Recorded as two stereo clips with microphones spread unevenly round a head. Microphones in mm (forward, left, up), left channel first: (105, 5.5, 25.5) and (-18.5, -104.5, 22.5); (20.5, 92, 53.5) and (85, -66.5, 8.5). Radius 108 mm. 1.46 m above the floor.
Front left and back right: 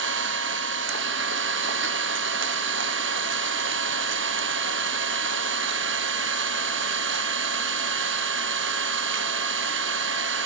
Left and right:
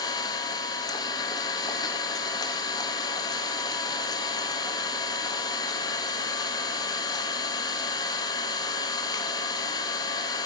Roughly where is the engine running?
Behind.